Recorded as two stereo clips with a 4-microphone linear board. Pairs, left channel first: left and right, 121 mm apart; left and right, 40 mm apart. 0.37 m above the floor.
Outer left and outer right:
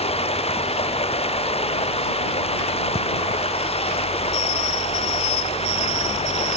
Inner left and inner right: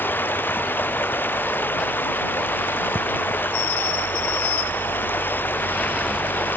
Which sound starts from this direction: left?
Running water, at 0.0 s.